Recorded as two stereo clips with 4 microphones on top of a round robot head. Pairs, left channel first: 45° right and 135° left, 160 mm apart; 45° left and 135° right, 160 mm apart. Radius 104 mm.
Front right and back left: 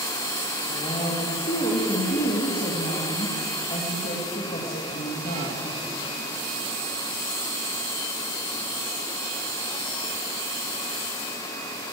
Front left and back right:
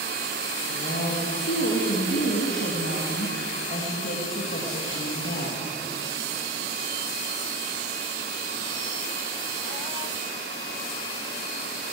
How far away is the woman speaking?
About 1.9 m.